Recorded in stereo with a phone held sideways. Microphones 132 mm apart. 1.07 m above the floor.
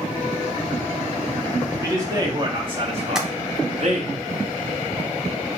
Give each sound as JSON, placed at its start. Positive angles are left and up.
{"t": 1.8, "sound": "a man speaking", "side_deg": -20, "distance_m": 1.8}
{"t": 3.1, "sound": "tapping", "side_deg": -5, "distance_m": 0.7}